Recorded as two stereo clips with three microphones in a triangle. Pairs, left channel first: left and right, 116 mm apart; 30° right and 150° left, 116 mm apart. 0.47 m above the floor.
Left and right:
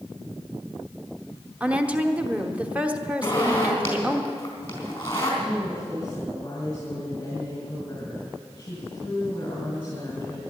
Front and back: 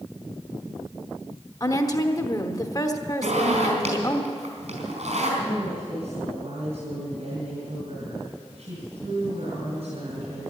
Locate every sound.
1.6 s a woman speaking: 20° right, 1.1 m
3.2 s a zipper: 155° left, 4.5 m
5.4 s a woman speaking: 150° left, 3.5 m